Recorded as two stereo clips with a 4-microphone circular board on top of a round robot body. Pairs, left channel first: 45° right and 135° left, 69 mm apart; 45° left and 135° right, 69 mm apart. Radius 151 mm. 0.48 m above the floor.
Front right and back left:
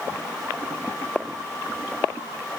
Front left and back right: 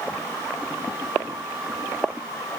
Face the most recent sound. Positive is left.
No sound to turn to.